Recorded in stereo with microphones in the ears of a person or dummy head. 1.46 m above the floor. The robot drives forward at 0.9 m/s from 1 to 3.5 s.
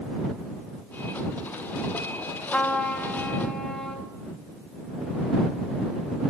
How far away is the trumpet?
About 2 m.